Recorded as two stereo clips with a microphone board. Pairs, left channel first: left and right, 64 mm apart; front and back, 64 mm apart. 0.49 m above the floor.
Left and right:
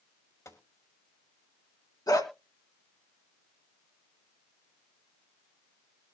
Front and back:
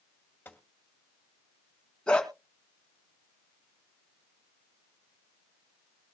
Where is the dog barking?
75° left, 1.7 m.